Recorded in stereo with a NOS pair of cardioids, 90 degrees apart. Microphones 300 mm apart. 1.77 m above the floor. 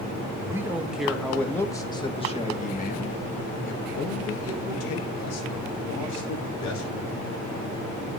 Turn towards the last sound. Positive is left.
turn(degrees=70)